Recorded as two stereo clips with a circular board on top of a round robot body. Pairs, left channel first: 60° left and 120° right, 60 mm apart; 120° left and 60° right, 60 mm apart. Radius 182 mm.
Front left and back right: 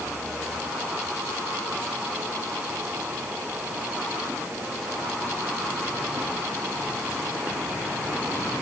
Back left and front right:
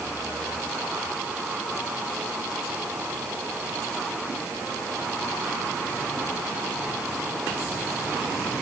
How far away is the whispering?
I don't hear whispering.